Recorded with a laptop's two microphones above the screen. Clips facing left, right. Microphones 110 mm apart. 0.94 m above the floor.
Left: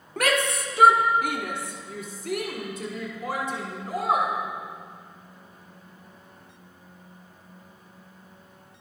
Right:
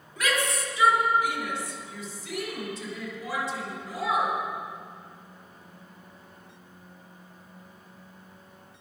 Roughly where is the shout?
Left.